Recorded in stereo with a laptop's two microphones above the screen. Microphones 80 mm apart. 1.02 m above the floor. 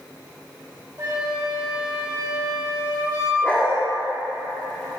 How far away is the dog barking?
About 1.3 m.